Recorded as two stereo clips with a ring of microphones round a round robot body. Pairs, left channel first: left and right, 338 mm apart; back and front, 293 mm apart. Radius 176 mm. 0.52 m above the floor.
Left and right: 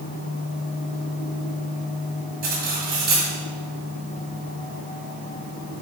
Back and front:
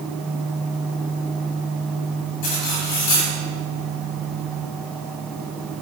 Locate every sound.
2.4 s cutlery clinking: 155° right, 2.0 m